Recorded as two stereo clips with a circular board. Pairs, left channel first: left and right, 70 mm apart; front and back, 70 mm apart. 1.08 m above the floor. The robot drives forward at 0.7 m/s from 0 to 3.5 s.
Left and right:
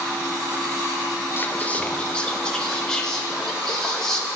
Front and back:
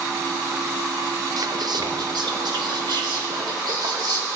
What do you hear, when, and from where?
1.4 s whispering: 150° left, 0.5 m; by 4.3 s 170° left, 2.0 m